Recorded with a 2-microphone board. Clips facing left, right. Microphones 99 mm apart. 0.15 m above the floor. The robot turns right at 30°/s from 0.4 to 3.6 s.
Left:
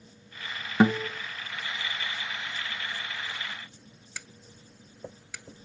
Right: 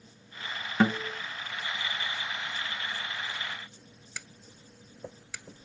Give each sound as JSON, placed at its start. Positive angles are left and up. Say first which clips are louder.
{"t": 0.8, "sound": "a guitar", "louder": "left 4 dB", "side_deg": 15, "distance_m": 0.6}